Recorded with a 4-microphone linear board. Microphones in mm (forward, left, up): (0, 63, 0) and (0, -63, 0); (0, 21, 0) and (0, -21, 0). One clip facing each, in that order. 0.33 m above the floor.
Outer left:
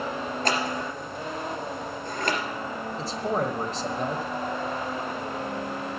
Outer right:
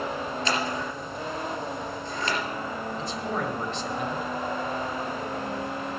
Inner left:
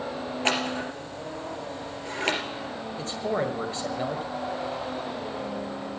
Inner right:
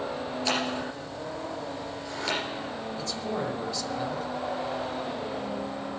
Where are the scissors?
50° left (ahead or behind), 3 m.